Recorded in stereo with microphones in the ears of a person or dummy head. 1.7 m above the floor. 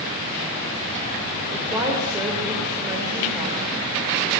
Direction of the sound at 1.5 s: 10° right (ahead or behind).